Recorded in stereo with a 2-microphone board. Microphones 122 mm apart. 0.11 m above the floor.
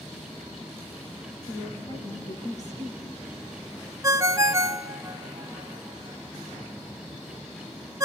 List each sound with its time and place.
1.5 s a woman speaking: 65° left (ahead or behind), 5.5 m
4.0 s a ringtone: 25° right (ahead or behind), 0.5 m